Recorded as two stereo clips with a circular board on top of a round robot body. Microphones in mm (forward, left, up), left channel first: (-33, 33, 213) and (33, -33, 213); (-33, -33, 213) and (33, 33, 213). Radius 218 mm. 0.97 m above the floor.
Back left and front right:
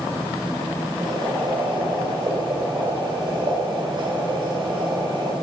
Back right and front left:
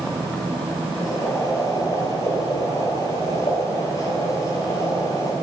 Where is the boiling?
80° right, 4.5 m.